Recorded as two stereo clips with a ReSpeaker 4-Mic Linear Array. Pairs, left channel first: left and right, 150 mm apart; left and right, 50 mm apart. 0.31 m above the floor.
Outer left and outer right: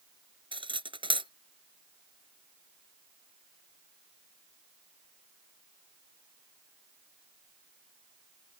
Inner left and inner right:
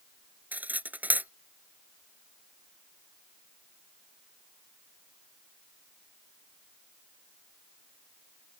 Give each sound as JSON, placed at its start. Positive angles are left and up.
{"t": 0.5, "sound": "cutlery clinking", "side_deg": -35}